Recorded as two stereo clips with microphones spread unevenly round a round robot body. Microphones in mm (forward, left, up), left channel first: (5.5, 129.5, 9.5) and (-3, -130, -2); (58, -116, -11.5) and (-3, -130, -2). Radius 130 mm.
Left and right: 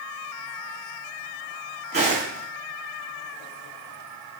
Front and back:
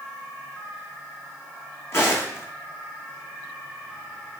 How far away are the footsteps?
About 1.0 m.